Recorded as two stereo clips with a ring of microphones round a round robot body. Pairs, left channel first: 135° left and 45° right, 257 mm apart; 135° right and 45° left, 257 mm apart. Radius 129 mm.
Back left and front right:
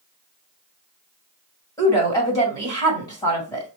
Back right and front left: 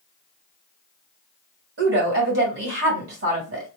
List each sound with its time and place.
1.8 s a woman speaking: 65° left, 2 m